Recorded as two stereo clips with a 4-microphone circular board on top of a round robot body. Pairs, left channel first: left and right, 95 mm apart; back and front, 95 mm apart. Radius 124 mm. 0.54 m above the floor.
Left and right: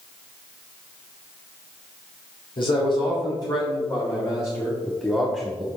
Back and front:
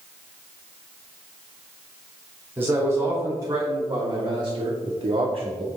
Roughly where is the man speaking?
Ahead left.